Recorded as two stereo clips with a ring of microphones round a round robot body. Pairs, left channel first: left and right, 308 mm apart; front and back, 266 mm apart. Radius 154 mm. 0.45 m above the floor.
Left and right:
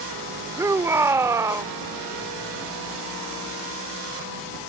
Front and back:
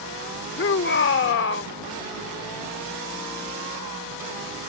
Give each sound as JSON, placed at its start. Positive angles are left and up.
{"t": 0.6, "sound": "a shout", "azimuth_deg": -15}